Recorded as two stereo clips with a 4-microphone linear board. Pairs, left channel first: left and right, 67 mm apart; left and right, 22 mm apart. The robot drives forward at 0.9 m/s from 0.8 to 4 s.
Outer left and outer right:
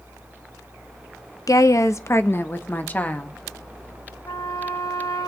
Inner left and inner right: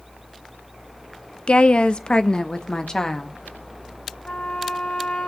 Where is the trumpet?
70° left (ahead or behind), 2 m.